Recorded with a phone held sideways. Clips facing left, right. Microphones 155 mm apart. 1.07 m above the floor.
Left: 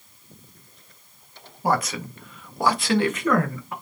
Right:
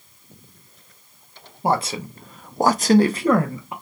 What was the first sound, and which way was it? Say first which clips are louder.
A man speaking: right 2 dB; 25° right (ahead or behind).